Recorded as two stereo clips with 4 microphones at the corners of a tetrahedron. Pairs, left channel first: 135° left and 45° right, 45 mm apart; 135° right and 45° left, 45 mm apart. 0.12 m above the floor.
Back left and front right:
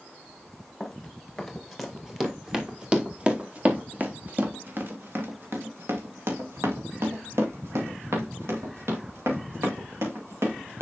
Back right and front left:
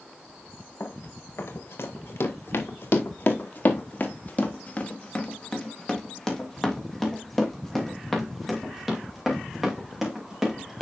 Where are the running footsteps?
145° right, 2.5 m; by 10.8 s 40° right, 4.5 m.